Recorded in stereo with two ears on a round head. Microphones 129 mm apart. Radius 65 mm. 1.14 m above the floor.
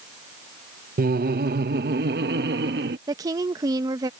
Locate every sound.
1.0 s laughter: 60° right (ahead or behind); by 3.0 s 75° right (ahead or behind)
3.1 s a woman speaking: 25° right (ahead or behind)